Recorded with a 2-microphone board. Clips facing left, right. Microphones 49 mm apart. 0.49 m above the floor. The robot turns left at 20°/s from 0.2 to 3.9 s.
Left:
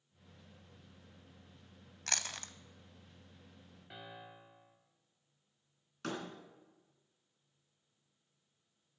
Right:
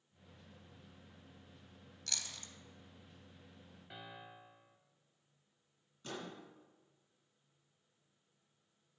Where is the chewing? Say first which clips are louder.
Left 7 dB; 55° left (ahead or behind), 0.6 m; by 2.5 s 65° left (ahead or behind), 0.6 m.